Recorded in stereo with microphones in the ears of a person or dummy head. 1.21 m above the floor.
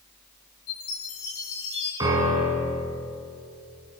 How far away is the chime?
About 8.5 m.